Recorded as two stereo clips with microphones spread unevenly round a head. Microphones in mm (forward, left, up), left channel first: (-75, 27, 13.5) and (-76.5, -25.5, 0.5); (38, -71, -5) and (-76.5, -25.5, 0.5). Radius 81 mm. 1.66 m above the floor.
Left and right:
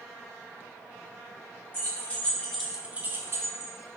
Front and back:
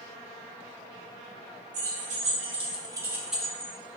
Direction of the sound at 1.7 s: 135° left.